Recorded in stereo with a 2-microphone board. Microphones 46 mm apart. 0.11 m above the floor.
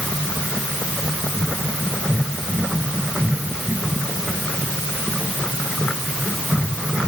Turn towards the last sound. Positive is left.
No sound to turn to.